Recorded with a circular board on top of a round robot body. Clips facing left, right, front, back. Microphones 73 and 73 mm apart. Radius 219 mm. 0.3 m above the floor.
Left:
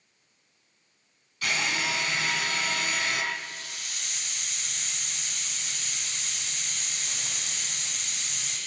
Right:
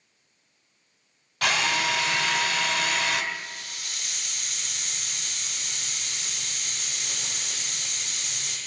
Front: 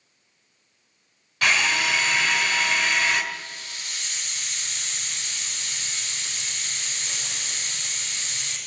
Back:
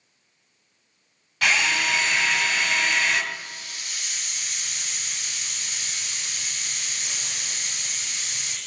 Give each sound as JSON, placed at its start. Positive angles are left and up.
{"t": 1.4, "sound": "a drill", "azimuth_deg": -90, "distance_m": 2.5}
{"t": 3.3, "sound": "a hiss", "azimuth_deg": -110, "distance_m": 5.5}